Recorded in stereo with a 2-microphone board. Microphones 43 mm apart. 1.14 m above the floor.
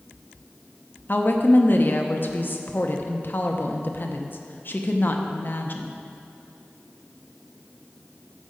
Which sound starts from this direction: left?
A woman speaking, at 1.1 s.